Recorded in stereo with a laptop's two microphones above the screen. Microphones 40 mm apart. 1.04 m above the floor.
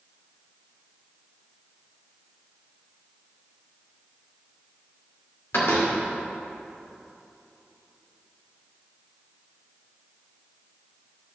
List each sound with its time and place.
5.5 s a door slam: 75° left (ahead or behind), 2 m